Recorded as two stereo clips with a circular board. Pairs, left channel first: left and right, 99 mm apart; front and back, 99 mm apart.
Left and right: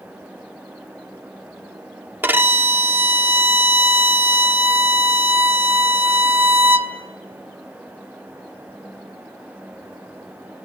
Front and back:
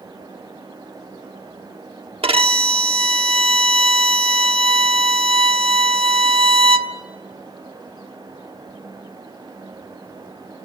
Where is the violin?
160° right, 1.0 m.